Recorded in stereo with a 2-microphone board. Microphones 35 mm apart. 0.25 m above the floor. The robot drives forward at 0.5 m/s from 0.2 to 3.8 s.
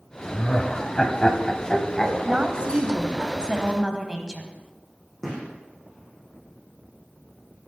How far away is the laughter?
About 1.0 m.